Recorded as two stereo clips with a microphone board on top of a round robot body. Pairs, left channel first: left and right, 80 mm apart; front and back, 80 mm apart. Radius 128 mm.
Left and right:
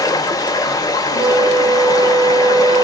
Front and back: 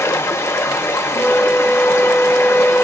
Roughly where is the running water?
Ahead left.